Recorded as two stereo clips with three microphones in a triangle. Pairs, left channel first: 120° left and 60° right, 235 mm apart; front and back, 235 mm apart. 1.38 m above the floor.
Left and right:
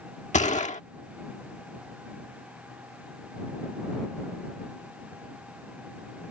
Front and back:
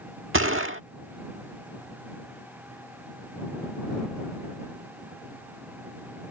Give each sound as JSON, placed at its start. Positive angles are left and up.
{"t": 0.3, "sound": "a gunshot", "azimuth_deg": 175}